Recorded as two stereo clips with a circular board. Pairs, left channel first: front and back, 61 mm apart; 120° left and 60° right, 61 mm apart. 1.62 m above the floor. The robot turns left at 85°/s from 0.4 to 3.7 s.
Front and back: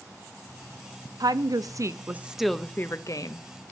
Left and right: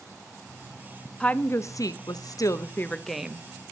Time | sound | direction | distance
1.2 | a woman speaking | 165° right | 0.6 m